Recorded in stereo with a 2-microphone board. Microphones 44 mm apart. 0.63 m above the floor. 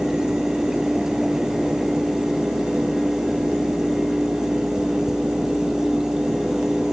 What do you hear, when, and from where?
Only background noise.